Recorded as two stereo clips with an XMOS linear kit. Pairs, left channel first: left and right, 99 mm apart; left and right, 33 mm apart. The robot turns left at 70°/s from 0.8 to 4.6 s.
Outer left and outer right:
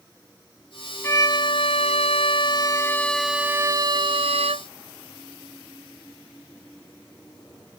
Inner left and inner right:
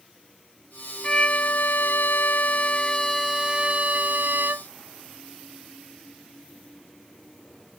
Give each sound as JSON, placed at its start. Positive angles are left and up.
{"t": 1.0, "sound": "a violin", "azimuth_deg": 155}